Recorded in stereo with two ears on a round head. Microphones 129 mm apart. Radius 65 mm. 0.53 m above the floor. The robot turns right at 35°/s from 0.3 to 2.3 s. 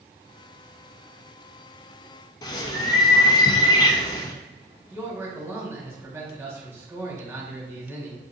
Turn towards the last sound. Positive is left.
turn(degrees=-20)  # may be behind; listen again after turning